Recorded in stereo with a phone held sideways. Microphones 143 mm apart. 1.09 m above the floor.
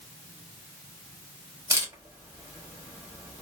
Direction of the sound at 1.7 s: 20° right (ahead or behind).